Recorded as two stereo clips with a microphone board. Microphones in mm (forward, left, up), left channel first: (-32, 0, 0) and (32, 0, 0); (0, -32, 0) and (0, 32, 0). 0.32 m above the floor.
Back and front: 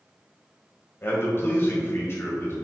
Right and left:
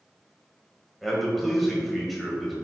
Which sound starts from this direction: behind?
A man speaking, at 1.0 s.